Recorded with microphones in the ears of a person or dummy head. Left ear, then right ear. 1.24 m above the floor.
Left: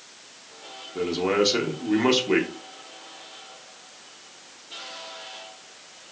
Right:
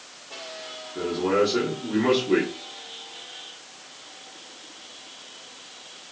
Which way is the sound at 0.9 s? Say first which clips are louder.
Even; 70° left (ahead or behind).